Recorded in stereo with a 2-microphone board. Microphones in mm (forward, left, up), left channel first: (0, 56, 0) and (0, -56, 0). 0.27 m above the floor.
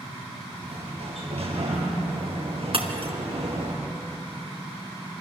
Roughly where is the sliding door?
Right.